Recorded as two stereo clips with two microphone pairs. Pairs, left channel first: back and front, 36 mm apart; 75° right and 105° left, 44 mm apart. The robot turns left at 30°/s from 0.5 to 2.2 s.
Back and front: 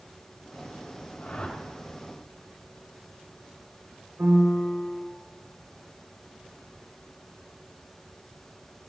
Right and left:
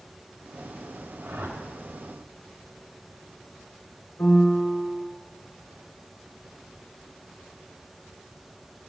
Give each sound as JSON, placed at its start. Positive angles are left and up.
{"t": 1.2, "sound": "a whoosh", "azimuth_deg": 135, "distance_m": 2.5}
{"t": 4.2, "sound": "a piano", "azimuth_deg": -35, "distance_m": 3.5}